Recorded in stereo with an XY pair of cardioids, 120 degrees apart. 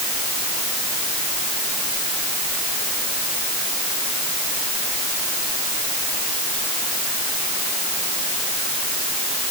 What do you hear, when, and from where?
Only background noise.